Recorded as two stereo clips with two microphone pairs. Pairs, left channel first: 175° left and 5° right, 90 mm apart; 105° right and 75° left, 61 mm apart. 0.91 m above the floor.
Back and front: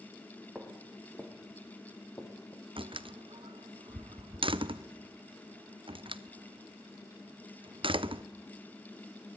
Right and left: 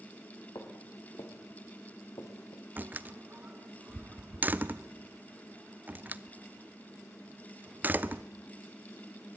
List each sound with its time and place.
0.6 s footsteps: 90° right, 5 m; by 2.7 s 130° right, 4 m
2.8 s a door slam: 15° left, 0.8 m